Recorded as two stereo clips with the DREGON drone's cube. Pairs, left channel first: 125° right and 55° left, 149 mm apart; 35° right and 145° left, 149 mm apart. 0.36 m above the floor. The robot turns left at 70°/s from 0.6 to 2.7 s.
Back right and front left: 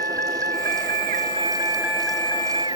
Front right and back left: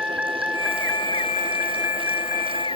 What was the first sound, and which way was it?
A vehicle, 60° left.